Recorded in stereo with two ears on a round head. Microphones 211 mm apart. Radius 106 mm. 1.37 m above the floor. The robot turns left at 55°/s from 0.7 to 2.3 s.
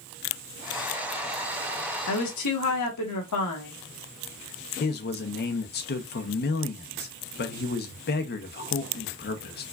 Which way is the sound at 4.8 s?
45° left (ahead or behind).